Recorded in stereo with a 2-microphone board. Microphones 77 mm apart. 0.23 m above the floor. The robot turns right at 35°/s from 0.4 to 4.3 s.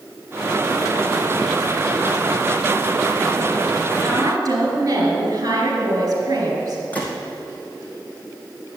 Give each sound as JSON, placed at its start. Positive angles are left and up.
{"t": 4.0, "sound": "a woman speaking", "side_deg": -50, "distance_m": 4.5}
{"t": 6.9, "sound": "a gunshot", "side_deg": 20, "distance_m": 2.5}